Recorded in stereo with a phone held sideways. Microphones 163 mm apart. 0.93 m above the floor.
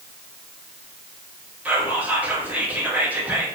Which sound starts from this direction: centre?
Whispering, at 1.6 s.